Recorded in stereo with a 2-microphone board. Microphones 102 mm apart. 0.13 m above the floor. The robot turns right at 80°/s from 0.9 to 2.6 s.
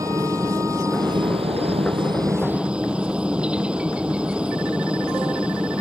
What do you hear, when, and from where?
0.0 s a helicopter: 145° right; by 5.8 s 10° right